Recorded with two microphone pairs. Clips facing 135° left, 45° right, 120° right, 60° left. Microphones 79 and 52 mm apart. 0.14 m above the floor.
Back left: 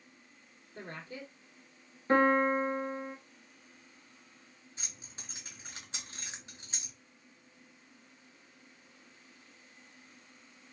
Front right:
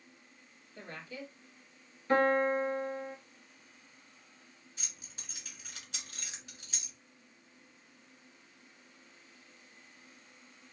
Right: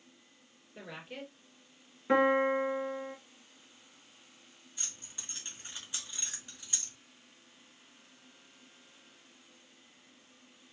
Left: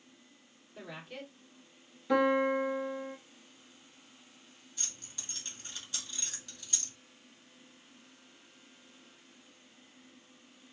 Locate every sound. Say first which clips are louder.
0.8 s a woman speaking: back left 1 dB, even; 170° left, 2.5 m
2.1 s a piano: back left 1 dB, right 1 dB; 175° right, 0.8 m
4.8 s keys jangling: back left 2 dB, even; 175° left, 1.1 m